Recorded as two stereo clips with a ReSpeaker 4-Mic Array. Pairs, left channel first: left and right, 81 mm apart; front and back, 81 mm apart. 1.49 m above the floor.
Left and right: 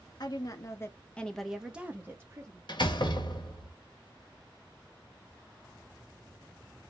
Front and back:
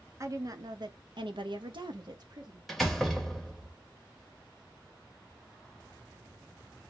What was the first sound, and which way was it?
A woman speaking, 125° left.